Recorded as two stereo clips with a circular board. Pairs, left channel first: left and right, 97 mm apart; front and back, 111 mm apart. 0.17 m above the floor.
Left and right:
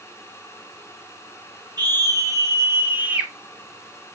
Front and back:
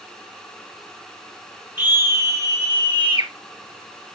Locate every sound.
1.8 s a scream: 110° right, 2.5 m; by 3.3 s 165° right, 3 m